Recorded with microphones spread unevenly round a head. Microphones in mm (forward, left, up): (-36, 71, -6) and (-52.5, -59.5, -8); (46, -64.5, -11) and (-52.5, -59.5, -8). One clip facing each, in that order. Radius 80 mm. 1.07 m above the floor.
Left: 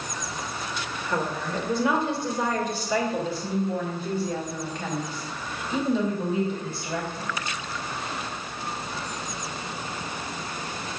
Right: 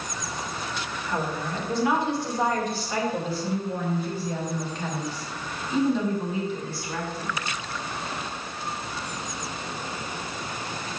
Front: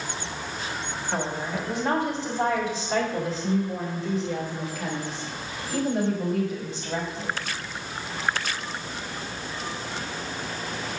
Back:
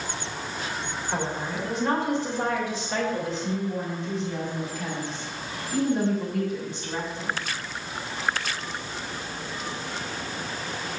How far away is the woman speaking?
About 3 m.